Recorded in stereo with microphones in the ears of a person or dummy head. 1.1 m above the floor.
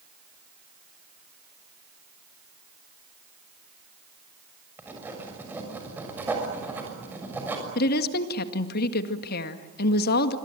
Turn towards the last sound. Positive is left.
turn(degrees=55)  # may be behind; listen again after turning